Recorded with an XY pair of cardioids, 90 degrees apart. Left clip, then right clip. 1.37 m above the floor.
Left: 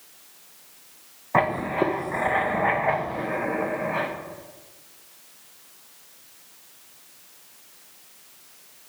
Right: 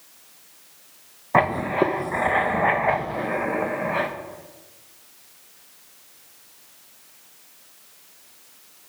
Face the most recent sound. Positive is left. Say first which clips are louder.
# right 2 dB
turn(degrees=-25)